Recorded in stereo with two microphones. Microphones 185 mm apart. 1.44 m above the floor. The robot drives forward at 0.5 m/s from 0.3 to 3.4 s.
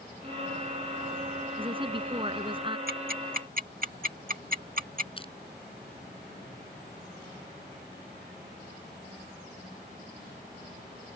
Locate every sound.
1.6 s a woman speaking: 30° right (ahead or behind)
2.9 s ticking: 60° right (ahead or behind); by 5.1 s 50° right (ahead or behind)
5.2 s crushing: 30° left (ahead or behind)